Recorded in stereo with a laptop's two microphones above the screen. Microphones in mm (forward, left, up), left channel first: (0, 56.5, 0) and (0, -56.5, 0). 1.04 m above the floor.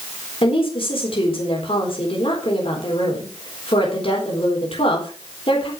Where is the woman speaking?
55° left (ahead or behind), 4 m.